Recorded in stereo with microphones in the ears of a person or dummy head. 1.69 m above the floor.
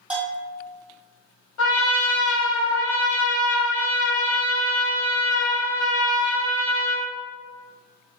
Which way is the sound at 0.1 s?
5° right (ahead or behind).